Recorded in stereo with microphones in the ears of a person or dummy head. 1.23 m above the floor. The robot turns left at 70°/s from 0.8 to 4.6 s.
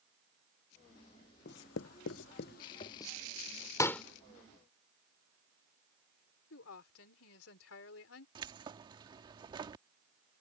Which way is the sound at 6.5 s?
85° left.